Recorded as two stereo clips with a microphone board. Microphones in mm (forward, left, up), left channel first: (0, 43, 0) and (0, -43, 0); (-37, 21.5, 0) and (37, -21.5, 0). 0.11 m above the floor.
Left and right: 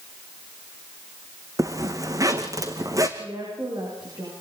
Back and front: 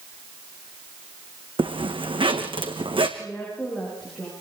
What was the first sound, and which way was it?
A zipper, 40° right.